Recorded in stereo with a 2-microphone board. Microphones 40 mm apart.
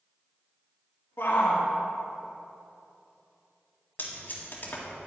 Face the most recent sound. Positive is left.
turn(degrees=50)  # may be behind; listen again after turning